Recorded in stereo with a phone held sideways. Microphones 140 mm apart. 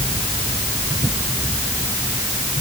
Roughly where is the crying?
I don't hear crying.